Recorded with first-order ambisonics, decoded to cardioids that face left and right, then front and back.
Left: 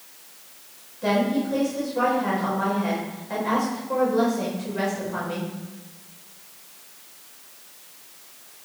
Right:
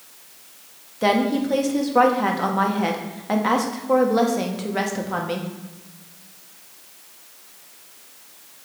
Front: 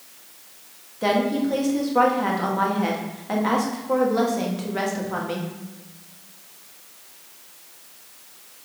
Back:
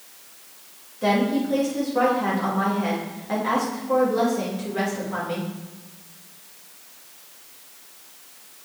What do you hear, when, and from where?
1.0 s a woman speaking: 75° right, 1.4 m